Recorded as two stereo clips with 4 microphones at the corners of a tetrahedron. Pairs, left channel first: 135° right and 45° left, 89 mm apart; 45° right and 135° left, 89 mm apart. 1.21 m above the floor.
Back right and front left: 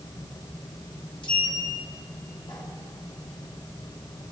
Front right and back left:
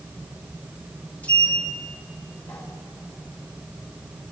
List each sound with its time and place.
1.2 s a sliding door: 115° right, 2 m